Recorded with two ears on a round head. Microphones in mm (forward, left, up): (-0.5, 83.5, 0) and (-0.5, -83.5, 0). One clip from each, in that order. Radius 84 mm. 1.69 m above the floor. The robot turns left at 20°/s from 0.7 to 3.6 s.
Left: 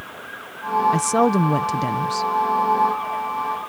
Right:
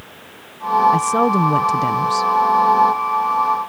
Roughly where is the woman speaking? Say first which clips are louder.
Right 3 dB; centre.